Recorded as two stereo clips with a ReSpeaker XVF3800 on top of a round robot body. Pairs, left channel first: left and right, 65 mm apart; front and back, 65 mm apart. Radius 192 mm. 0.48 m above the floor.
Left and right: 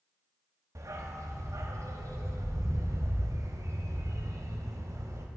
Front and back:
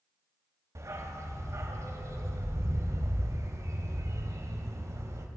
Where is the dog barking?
135° right, 1.3 m.